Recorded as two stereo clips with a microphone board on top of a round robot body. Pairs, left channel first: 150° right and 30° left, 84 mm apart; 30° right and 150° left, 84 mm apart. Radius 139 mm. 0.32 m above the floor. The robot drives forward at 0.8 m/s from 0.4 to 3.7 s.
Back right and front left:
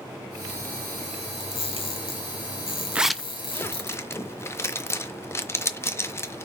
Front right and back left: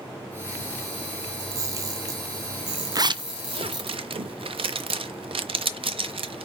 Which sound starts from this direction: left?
A zipper, at 3.0 s.